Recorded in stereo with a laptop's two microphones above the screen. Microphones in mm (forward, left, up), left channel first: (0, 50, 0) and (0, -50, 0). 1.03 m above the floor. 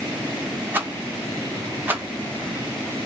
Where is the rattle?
20° right (ahead or behind), 0.7 m.